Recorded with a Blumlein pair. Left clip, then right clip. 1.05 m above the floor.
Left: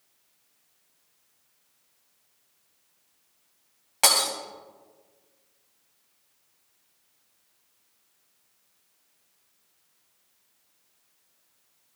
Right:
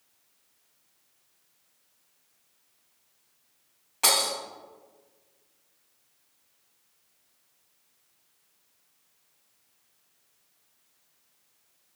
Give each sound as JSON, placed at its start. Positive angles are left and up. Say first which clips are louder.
{"t": 4.0, "sound": "breaking glass", "louder": "left 2 dB", "azimuth_deg": 25, "distance_m": 2.5}